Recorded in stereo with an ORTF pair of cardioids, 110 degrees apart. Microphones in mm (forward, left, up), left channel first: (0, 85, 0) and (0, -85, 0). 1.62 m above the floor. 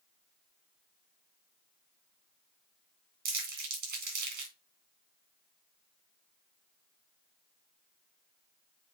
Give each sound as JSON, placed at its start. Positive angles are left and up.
{"t": 3.2, "sound": "crumpling", "azimuth_deg": -70, "distance_m": 4.0}